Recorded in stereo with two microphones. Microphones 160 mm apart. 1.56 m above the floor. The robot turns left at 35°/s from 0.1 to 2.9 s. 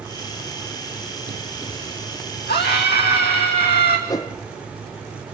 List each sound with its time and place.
2.5 s a scream: 80° left, 2 m; by 4.0 s 85° left, 2 m
4.1 s a whoosh: 20° left (ahead or behind), 0.6 m